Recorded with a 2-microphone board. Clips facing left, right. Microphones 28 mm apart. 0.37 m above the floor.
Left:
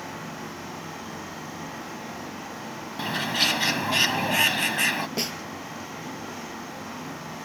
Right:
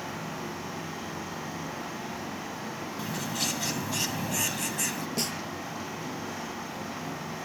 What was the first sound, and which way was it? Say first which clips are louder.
A bird: left 9 dB; 50° left (ahead or behind).